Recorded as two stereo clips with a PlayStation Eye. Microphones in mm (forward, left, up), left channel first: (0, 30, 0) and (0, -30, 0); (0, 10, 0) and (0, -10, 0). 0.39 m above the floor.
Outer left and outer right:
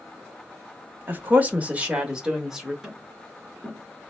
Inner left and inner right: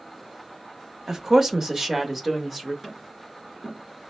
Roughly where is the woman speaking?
Right.